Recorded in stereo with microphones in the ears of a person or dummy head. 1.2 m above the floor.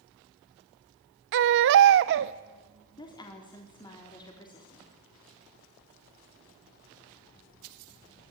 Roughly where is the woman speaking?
Left.